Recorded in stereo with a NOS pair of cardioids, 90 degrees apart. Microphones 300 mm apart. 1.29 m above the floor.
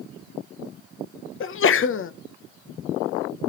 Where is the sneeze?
45° left, 0.9 m.